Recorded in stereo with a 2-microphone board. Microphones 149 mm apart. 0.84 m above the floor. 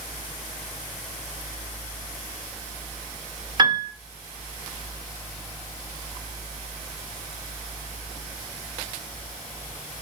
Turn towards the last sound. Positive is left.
turn(degrees=-30)  # may be behind; listen again after turning